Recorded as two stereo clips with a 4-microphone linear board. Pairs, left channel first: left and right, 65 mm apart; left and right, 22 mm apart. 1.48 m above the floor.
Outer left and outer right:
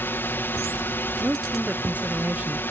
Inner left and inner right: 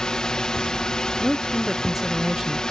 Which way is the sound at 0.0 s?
35° left (ahead or behind).